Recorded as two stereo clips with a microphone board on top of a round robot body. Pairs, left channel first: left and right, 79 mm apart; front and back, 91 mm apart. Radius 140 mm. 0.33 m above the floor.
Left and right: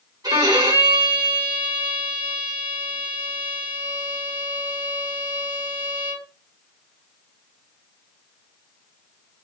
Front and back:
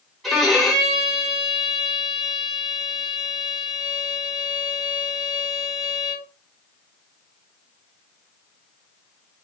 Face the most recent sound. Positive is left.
turn(degrees=-90)